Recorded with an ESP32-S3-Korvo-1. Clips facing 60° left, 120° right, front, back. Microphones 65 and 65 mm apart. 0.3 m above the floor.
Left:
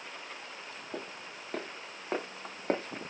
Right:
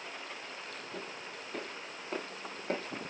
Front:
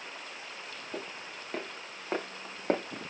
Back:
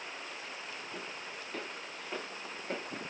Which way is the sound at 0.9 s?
50° left.